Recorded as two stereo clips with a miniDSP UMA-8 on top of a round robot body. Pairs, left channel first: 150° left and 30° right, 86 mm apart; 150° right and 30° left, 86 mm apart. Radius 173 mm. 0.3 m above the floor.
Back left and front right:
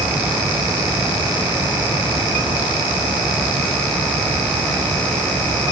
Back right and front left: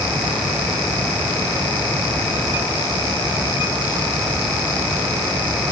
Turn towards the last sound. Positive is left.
No sound to turn to.